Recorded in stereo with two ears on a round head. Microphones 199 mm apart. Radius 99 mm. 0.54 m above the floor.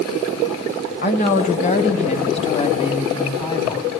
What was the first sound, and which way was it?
A woman speaking, 40° left (ahead or behind).